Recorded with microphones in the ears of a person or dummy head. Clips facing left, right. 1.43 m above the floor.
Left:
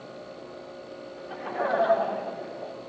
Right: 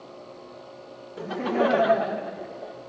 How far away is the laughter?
About 1.2 m.